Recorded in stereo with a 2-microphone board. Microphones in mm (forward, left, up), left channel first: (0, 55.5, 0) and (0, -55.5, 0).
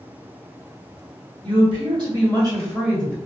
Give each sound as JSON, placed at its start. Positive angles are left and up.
{"t": 1.4, "sound": "a woman speaking", "side_deg": -50, "distance_m": 1.6}